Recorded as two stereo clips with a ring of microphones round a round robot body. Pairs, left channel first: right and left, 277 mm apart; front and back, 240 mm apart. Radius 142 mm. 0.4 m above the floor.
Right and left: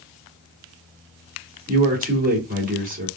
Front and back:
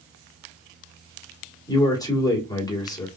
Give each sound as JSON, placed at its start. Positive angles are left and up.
{"t": 1.7, "sound": "a man speaking", "azimuth_deg": 60, "distance_m": 1.7}